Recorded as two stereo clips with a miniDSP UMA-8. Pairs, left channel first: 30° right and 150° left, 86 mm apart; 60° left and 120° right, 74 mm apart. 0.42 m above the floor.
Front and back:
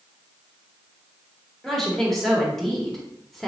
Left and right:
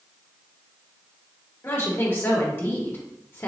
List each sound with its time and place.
1.6 s a woman speaking: 55° left, 1.0 m